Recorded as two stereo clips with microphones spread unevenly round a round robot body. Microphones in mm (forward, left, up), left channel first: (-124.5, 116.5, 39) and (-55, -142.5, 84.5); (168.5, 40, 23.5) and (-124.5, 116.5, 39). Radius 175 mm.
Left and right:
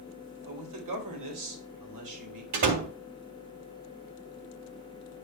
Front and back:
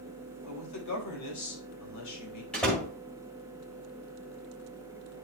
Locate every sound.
0.5 s a man speaking: 55° right, 3.5 m
2.5 s a door slam: 100° right, 1.7 m